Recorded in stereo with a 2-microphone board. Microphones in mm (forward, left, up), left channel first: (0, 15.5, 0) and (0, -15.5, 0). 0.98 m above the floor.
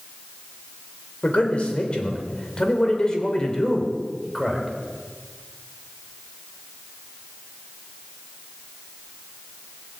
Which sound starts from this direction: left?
A man speaking, at 1.2 s.